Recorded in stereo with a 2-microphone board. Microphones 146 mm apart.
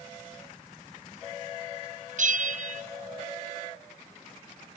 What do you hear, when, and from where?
2.2 s a bell: 60° right (ahead or behind), 1.0 m